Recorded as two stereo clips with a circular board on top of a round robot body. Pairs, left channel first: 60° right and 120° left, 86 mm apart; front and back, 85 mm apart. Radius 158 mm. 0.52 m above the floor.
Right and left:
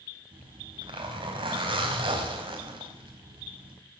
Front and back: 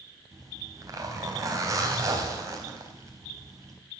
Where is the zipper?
130° left, 4 m.